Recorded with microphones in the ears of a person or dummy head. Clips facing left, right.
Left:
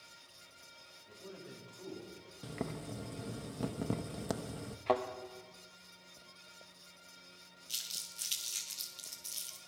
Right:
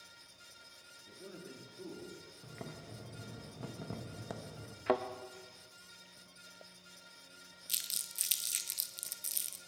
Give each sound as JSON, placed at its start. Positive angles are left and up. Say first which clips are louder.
{"t": 1.1, "sound": "a man speaking", "louder": "even", "side_deg": -30, "distance_m": 2.5}
{"t": 2.4, "sound": "boiling", "louder": "left 9 dB", "side_deg": 55, "distance_m": 1.0}
{"t": 4.9, "sound": "a thud", "louder": "even", "side_deg": -10, "distance_m": 0.7}
{"t": 7.7, "sound": "crumpling", "louder": "even", "side_deg": -25, "distance_m": 1.1}